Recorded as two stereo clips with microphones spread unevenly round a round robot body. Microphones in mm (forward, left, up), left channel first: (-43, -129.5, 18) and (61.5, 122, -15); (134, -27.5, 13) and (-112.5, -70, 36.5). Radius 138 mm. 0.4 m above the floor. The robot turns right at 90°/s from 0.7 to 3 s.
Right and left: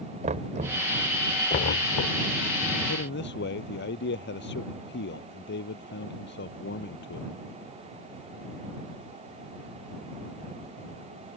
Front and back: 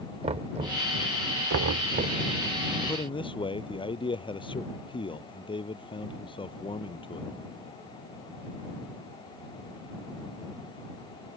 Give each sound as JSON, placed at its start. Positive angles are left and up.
{"t": 0.2, "sound": "knocking", "azimuth_deg": 120}
{"t": 2.9, "sound": "a man speaking", "azimuth_deg": -70}